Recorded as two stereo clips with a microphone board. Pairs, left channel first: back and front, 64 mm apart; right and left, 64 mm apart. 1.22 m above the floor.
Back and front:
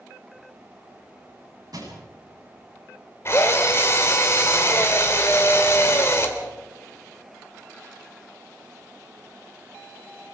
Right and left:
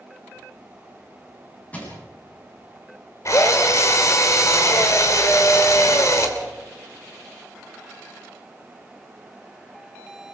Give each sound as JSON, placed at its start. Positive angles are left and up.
{"t": 1.7, "sound": "crushing", "azimuth_deg": -25, "distance_m": 9.0}
{"t": 3.2, "sound": "a drill", "azimuth_deg": -130, "distance_m": 2.5}